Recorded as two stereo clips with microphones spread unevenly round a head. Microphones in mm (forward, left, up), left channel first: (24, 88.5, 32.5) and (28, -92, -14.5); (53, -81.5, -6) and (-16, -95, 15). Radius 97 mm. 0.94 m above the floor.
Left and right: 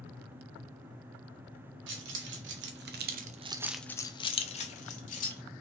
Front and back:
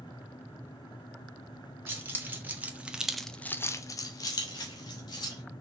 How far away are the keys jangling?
About 1.4 m.